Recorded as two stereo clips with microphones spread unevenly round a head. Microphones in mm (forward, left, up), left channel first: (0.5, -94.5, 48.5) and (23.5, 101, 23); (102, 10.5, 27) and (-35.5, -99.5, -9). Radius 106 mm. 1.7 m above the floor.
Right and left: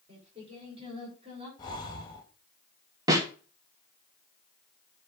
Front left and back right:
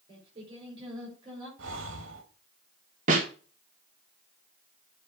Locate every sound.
0.1 s singing: 150° left, 6 m
1.6 s breathing: 160° right, 1.6 m
3.1 s a snare drum: 160° left, 1.4 m